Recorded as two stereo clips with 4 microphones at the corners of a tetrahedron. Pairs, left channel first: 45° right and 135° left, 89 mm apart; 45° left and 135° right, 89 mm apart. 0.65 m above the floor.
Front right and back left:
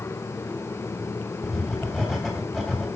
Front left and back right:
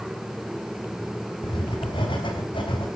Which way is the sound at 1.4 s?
50° left.